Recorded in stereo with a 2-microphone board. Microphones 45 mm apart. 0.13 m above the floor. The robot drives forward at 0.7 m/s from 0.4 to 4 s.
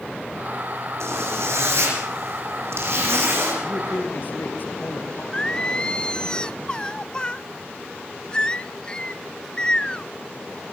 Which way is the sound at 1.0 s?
75° right (ahead or behind).